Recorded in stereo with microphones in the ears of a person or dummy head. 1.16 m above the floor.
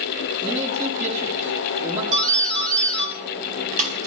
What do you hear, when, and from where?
0.4 s a man speaking: 35° right (ahead or behind), 5 m
2.1 s a doorbell: 35° right (ahead or behind), 3 m